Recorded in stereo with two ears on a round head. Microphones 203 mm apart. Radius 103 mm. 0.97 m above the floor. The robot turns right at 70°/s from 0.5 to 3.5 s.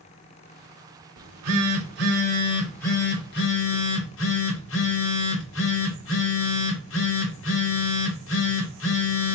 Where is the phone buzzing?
105° right, 1.6 m; by 9.3 s 60° left, 1.6 m.